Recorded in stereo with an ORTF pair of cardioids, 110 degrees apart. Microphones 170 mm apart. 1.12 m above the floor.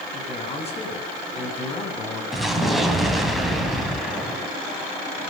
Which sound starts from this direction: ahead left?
A man speaking, at 0.1 s.